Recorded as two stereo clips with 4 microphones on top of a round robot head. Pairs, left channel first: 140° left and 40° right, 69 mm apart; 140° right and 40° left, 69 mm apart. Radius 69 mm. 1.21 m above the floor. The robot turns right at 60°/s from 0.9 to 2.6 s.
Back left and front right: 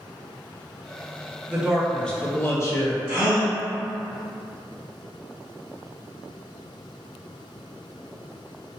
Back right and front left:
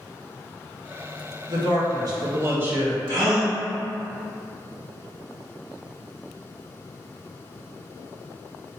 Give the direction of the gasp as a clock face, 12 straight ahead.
11 o'clock.